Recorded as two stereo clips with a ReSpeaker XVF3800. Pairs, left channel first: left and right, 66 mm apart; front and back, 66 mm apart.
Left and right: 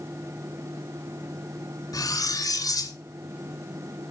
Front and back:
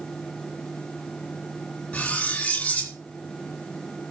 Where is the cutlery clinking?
70° left, 2 m.